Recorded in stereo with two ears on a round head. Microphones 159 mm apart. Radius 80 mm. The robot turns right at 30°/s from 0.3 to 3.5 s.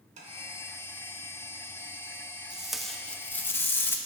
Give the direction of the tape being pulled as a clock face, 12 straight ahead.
12 o'clock.